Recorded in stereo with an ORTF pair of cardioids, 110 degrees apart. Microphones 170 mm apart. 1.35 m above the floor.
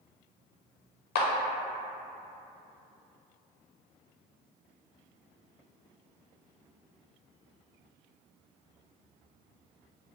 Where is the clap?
65° left, 0.5 m.